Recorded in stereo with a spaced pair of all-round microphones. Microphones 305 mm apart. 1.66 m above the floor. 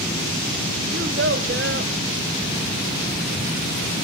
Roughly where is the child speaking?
Right.